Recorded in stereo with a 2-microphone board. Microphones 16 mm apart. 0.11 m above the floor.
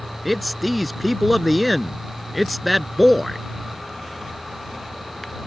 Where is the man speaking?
Centre (ahead or behind).